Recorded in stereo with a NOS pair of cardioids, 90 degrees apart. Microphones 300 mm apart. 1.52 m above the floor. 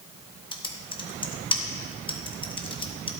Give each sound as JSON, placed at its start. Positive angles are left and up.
{"t": 0.5, "sound": "typing on a keyboard", "azimuth_deg": 15, "distance_m": 1.7}